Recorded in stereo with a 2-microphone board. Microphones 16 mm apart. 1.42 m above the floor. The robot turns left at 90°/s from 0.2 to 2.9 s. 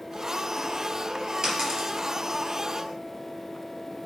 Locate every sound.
1.4 s a dropped coin: 60° right (ahead or behind), 3 m; by 2.0 s 20° right (ahead or behind), 3 m